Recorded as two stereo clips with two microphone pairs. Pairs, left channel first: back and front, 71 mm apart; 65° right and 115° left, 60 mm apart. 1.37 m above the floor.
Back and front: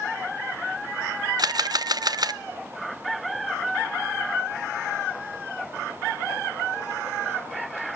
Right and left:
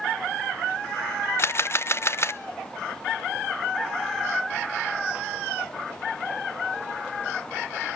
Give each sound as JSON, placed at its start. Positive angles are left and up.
{"t": 1.4, "sound": "a camera shutter", "azimuth_deg": -20, "distance_m": 0.6}